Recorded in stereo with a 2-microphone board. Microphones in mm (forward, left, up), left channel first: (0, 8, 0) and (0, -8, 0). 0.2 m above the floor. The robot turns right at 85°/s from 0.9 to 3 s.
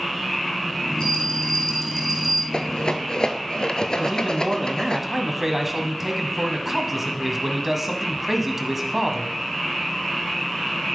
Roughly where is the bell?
Left.